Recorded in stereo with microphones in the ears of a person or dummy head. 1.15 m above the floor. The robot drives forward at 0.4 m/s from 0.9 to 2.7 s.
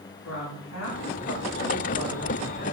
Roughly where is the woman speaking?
Left.